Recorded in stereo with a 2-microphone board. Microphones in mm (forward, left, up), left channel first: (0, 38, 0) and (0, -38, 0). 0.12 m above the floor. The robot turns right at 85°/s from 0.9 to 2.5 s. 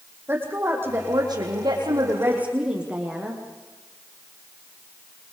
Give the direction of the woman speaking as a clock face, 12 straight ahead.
5 o'clock.